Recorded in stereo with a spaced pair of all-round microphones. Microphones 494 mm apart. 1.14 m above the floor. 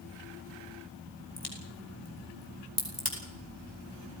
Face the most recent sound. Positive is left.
turn(degrees=55)  # may be behind; listen again after turning